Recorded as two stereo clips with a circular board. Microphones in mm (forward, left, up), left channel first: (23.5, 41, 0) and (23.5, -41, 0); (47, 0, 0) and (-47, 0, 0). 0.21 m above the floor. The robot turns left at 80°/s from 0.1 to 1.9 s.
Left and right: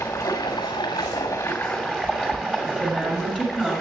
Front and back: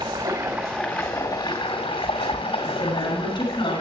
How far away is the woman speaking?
About 2.5 m.